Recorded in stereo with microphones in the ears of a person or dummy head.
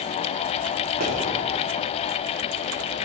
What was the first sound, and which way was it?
A pop, 50° right (ahead or behind).